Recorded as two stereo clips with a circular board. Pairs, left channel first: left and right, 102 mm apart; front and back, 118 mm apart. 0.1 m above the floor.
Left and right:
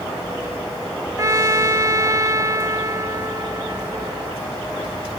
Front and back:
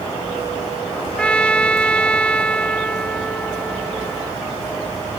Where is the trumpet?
75° right.